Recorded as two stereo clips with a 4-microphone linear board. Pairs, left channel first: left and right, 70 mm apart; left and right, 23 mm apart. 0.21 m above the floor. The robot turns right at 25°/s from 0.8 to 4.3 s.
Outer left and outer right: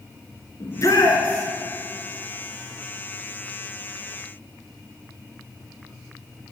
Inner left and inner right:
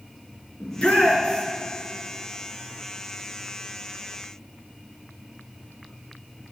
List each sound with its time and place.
0.6 s a shout: 50° left (ahead or behind), 3 m; by 1.5 s 60° left (ahead or behind), 3 m